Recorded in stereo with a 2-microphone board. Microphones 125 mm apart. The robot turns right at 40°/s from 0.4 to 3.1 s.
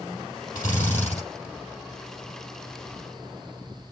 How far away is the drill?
About 6.5 m.